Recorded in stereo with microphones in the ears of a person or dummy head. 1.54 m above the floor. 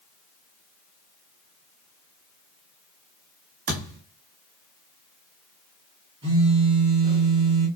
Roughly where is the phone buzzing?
Right.